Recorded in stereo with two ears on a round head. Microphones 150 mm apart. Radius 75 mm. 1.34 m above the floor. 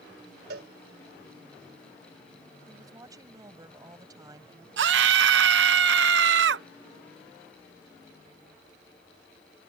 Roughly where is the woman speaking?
Right.